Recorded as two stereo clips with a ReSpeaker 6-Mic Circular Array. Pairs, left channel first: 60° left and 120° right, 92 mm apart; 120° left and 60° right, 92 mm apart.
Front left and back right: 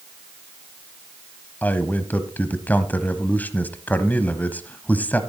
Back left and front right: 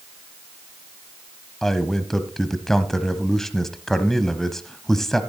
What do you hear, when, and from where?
1.6 s a man speaking: 45° left, 1.0 m